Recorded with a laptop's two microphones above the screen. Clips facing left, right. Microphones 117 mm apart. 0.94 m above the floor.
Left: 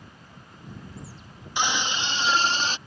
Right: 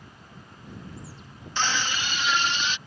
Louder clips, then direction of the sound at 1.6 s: Left 1 dB; 15° left (ahead or behind).